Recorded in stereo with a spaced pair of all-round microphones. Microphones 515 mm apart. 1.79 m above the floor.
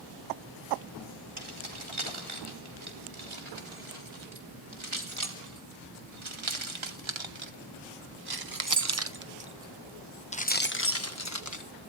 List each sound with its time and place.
1.4 s keys jangling: 65° right (ahead or behind), 4.5 m; by 11.7 s 35° left (ahead or behind), 1.4 m